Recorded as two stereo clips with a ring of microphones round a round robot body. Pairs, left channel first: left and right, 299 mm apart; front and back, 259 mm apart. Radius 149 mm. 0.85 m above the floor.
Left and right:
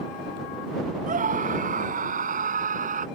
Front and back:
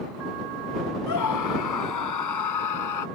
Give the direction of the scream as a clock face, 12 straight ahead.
1 o'clock.